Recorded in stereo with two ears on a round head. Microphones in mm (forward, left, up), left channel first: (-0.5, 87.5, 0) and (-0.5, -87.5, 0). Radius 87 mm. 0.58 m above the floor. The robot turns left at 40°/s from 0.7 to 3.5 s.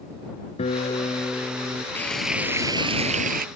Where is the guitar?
30° left; by 1.9 s 15° right.